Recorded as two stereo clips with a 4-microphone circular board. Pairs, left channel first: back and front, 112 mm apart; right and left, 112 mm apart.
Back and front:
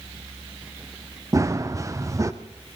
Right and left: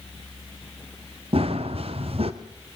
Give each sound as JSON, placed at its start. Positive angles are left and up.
{"t": 1.3, "sound": "running footsteps", "azimuth_deg": 60, "distance_m": 1.6}